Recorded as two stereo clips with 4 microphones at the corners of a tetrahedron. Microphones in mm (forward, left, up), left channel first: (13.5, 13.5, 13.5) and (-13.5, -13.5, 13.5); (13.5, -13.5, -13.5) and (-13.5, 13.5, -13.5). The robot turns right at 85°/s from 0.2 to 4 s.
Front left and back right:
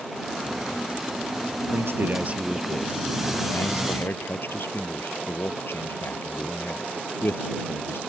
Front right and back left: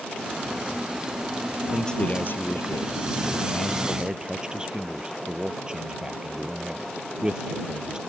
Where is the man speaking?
145° right; by 8.0 s 65° left.